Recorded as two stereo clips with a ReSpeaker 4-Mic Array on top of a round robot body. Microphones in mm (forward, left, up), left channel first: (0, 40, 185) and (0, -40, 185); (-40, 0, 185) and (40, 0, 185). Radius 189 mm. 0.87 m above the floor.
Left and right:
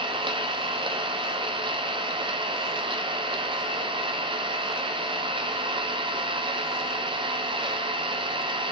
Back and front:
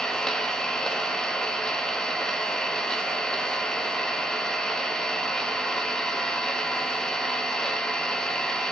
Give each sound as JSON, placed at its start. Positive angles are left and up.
{"t": 0.0, "sound": "an engine running", "azimuth_deg": -95, "distance_m": 1.0}